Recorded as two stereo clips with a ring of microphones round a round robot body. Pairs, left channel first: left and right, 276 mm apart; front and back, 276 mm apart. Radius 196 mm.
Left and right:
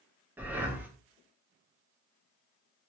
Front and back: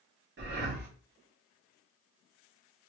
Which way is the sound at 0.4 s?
170° right.